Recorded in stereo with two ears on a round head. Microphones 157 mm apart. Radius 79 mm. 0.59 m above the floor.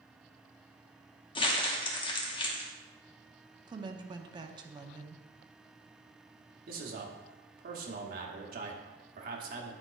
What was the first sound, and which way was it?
Crumpling, 30° left (ahead or behind).